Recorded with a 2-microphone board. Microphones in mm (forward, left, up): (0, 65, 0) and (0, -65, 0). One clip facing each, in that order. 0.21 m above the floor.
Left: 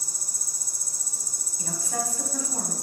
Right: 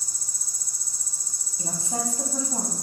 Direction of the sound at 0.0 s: 65° left (ahead or behind).